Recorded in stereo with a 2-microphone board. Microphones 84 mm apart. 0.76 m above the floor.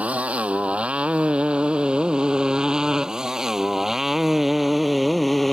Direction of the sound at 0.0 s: 15° right (ahead or behind).